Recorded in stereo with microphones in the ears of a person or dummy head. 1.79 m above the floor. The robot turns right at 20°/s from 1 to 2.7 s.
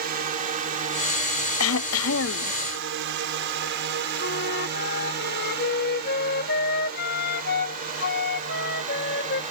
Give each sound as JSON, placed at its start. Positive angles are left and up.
{"t": 0.0, "sound": "a drone", "side_deg": -40}
{"t": 1.6, "sound": "throat clearing", "side_deg": 85}
{"t": 4.2, "sound": "a flute", "side_deg": 60}